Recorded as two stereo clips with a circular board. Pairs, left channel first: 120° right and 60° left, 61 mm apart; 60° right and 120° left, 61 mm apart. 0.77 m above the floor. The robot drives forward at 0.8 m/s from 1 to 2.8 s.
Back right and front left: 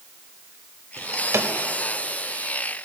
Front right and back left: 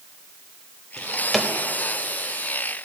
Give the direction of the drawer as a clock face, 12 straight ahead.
11 o'clock.